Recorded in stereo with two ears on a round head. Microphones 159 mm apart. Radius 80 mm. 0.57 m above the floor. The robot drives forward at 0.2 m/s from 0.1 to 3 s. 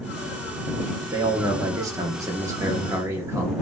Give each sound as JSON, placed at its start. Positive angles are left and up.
{"t": 1.1, "sound": "a man speaking", "side_deg": -20, "distance_m": 0.6}